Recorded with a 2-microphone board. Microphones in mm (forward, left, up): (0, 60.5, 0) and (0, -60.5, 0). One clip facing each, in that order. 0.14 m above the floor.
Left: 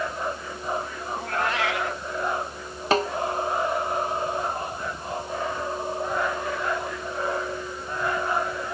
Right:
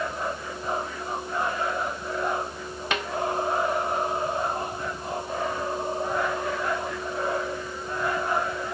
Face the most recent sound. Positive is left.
turn(degrees=35)  # may be behind; listen again after turning